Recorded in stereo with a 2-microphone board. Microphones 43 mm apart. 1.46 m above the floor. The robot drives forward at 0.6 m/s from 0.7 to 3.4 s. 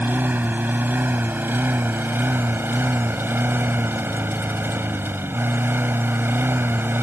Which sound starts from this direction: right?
A lawn mower, at 0.0 s.